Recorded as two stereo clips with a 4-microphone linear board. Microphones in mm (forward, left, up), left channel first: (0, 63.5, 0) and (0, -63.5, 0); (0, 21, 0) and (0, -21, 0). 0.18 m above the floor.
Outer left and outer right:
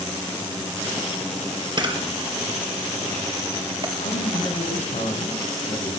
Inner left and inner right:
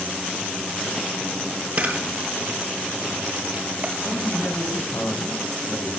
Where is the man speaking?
75° left (ahead or behind), 5.5 m.